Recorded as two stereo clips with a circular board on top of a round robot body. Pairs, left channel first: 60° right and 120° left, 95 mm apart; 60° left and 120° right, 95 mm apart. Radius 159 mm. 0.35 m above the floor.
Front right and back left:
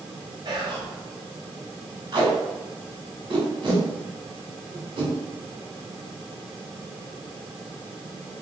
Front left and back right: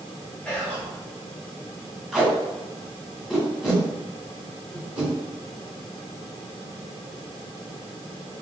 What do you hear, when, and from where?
0.5 s whispering: 135° left, 1.2 m
2.1 s tape being pulled: 155° left, 1.9 m